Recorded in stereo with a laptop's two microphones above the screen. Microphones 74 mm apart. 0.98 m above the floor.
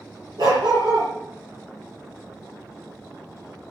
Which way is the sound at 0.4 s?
70° right (ahead or behind).